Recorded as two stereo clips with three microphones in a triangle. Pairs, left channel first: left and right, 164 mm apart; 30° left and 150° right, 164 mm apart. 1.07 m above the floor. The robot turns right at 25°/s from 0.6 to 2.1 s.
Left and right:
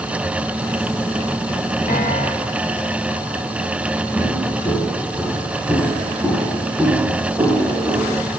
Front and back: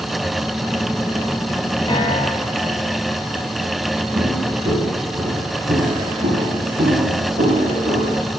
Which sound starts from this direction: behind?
Footsteps, at 4.2 s.